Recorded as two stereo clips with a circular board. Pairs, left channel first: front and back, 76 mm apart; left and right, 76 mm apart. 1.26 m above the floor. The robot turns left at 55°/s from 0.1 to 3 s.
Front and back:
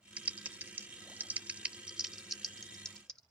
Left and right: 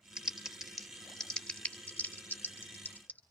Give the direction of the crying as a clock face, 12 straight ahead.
I don't hear crying.